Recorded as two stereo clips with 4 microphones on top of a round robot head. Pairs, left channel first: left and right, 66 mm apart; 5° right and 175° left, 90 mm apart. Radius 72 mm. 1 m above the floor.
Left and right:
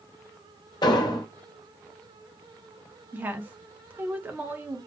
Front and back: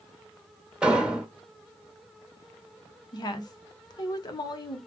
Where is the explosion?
95° left, 0.9 m.